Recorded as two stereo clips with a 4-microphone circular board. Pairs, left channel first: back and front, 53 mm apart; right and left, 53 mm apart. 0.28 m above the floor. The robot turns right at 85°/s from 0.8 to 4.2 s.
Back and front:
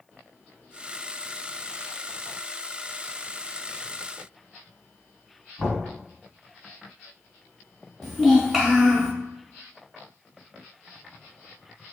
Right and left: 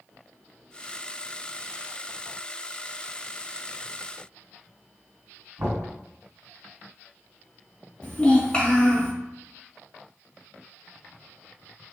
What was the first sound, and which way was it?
Knocking, 110° left.